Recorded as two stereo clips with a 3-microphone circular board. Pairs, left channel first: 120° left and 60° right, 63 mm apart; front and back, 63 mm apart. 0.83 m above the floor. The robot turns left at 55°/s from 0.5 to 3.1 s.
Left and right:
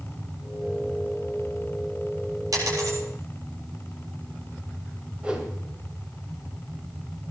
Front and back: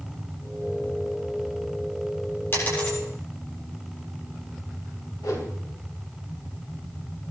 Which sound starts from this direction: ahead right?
A dropped coin, at 2.5 s.